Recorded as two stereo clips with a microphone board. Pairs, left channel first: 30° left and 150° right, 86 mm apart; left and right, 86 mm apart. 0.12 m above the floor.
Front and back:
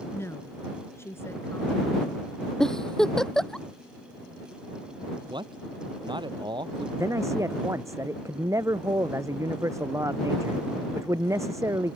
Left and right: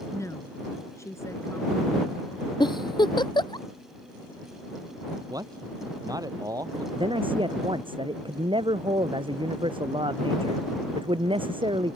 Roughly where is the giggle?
Behind left.